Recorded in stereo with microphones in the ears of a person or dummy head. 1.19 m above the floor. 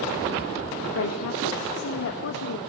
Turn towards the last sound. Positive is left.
turn(degrees=85)